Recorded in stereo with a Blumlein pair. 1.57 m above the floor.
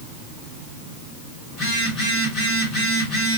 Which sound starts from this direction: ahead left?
A phone buzzing, at 1.5 s.